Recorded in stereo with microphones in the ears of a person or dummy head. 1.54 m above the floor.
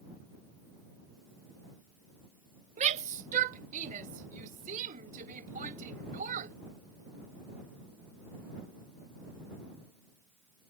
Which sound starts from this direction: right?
A shout, at 2.8 s.